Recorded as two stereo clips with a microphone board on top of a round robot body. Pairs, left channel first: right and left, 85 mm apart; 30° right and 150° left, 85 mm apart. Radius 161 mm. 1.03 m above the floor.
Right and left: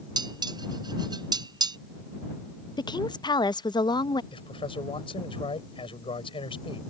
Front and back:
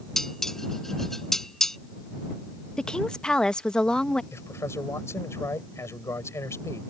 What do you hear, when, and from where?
0.2 s dishes clattering: 55° left
2.8 s a woman speaking: 110° right
4.3 s a man speaking: 90° right